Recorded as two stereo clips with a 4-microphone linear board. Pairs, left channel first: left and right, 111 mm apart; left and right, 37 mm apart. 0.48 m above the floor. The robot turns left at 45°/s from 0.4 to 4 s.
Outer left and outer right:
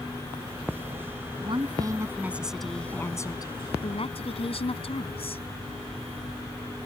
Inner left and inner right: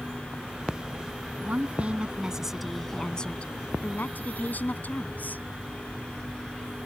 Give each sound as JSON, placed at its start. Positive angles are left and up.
{"t": 1.4, "sound": "a woman speaking", "azimuth_deg": -125}